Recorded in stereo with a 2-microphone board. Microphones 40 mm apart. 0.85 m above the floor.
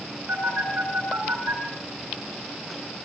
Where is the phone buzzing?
70° right (ahead or behind), 9.5 m.